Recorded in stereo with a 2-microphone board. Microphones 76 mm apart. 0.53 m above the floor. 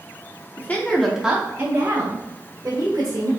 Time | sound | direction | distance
0.6 | a woman speaking | 30° left (ahead or behind) | 1.0 m